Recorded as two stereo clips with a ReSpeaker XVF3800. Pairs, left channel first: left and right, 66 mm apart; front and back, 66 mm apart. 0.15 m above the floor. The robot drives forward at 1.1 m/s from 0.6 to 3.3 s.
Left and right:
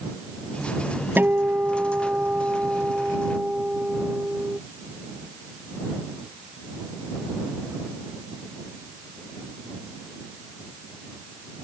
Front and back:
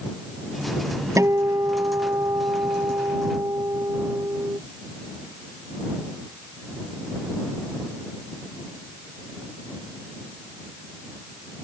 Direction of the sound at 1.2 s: 145° right.